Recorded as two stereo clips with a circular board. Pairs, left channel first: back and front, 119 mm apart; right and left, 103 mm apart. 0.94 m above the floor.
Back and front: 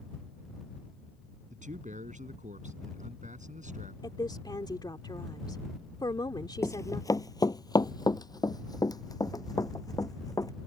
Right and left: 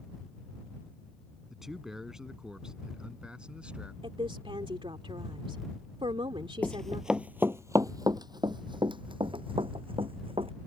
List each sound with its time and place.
1.5 s a man speaking: 5° left; by 3.9 s 10° left
4.0 s a woman speaking: 125° left
6.6 s running footsteps: 145° right; by 10.5 s 120° left